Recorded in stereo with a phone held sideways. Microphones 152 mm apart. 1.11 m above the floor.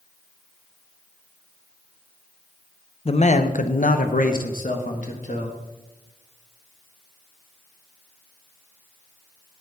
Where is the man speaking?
40° left (ahead or behind), 0.8 m; by 5.6 s 60° left (ahead or behind), 1.8 m.